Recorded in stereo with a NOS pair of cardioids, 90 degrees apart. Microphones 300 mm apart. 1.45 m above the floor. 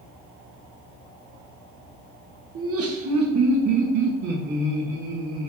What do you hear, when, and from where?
2.5 s laughter: 50° right, 1.7 m; by 5.5 s 75° right, 3 m